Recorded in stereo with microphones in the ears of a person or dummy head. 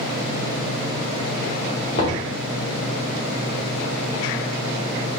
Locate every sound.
1.9 s knocking: 45° left (ahead or behind), 2 m